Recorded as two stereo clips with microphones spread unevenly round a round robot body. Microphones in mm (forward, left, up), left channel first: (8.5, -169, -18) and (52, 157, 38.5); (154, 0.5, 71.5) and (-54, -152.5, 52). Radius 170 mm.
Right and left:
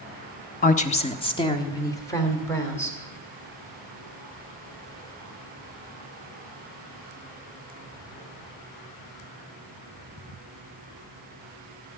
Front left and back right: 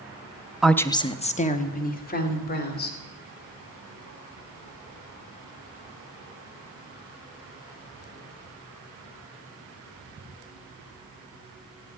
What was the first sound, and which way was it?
A woman speaking, 60° right.